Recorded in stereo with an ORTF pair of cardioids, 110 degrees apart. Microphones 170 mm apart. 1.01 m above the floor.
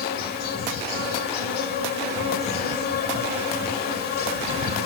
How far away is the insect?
About 1.8 m.